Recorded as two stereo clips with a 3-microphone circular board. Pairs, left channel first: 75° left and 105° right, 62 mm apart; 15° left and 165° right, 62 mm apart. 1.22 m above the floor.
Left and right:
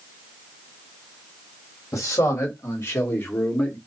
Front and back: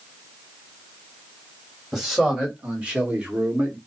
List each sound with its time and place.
1.9 s a man speaking: 110° left, 2.5 m; by 3.8 s 140° left, 1.8 m